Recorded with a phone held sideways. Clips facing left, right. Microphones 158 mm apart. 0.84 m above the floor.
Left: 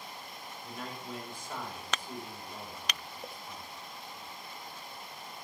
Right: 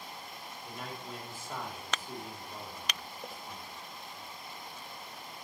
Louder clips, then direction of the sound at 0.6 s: Left 1 dB; 5° right (ahead or behind).